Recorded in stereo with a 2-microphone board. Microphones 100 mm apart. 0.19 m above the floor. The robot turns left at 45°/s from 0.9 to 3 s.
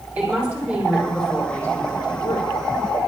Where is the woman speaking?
165° right, 7.5 m; by 2.5 s 125° left, 7.5 m.